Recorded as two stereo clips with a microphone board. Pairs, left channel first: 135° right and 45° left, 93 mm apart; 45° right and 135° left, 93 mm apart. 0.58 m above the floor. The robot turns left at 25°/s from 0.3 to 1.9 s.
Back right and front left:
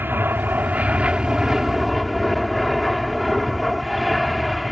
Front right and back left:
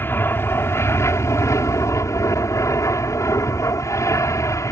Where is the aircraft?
Straight ahead; by 4.7 s 40° right.